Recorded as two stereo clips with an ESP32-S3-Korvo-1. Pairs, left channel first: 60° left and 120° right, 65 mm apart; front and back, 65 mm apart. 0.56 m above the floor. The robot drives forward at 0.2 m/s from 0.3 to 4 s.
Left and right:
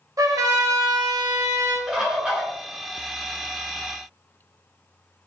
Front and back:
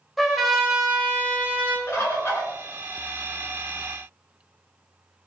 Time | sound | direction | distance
0.2 | a trumpet | 90° right | 0.6 m
1.9 | a bird | 40° right | 1.0 m